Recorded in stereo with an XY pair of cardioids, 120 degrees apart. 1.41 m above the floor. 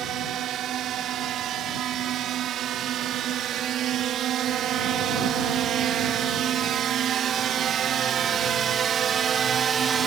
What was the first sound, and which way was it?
A drone, 65° right.